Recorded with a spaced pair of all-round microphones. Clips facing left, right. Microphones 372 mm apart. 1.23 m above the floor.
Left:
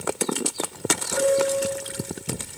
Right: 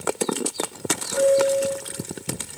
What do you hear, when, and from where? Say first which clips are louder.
1.1 s a piano: right 3 dB; 80° left, 4.5 m